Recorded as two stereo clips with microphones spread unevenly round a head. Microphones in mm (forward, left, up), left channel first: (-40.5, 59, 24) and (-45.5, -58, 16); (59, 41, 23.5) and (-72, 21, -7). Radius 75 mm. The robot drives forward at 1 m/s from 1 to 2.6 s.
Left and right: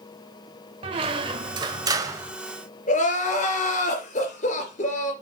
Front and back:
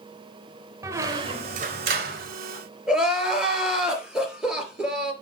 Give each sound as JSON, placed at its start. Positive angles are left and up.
{"t": 0.8, "sound": "a squeak", "azimuth_deg": -95, "distance_m": 1.1}
{"t": 2.9, "sound": "crying", "azimuth_deg": 100, "distance_m": 3.5}